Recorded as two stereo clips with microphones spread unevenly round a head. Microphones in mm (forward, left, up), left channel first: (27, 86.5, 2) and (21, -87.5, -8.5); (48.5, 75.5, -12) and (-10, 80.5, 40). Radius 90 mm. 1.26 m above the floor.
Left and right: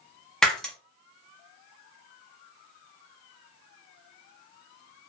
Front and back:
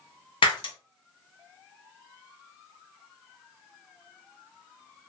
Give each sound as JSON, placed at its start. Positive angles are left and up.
{"t": 0.4, "sound": "breaking glass", "azimuth_deg": 5, "distance_m": 0.9}